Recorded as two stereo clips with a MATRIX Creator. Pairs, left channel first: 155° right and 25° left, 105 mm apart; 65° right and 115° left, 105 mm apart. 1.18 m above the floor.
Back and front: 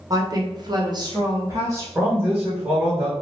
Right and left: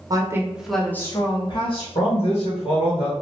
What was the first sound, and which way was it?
A woman speaking, 70° left.